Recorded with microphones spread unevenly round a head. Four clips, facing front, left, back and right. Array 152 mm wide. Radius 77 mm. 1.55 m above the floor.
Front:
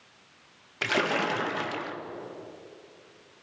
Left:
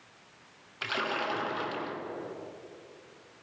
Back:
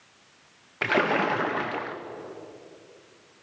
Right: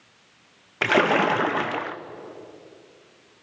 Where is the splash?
105° right, 0.8 m.